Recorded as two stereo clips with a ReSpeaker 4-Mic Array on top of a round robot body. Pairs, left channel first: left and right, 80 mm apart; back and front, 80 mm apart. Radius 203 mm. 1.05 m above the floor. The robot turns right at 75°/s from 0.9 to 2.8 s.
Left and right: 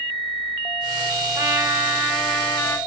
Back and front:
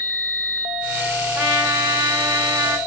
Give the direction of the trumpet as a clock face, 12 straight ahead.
2 o'clock.